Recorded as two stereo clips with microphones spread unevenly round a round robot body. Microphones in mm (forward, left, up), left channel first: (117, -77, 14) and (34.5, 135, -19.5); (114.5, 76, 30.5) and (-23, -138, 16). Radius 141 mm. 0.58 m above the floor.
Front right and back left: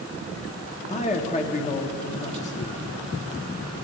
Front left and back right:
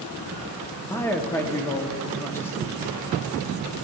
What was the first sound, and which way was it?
A man speaking, 20° right.